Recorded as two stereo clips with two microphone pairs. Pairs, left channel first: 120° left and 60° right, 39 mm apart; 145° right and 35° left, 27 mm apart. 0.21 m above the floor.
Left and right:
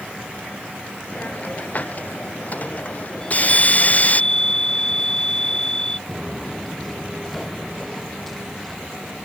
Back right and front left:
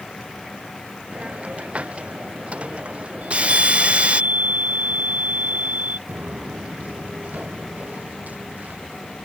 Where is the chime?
45° left.